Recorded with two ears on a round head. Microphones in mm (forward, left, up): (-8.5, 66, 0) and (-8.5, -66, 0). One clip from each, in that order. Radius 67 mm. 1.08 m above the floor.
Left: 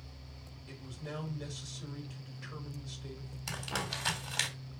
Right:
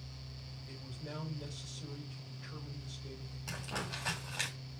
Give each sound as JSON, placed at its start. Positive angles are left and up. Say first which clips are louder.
{"t": 0.7, "sound": "a man speaking", "louder": "left 3 dB", "side_deg": 50, "distance_m": 3.5}
{"t": 3.5, "sound": "crumpling", "louder": "left 4 dB", "side_deg": 50, "distance_m": 3.5}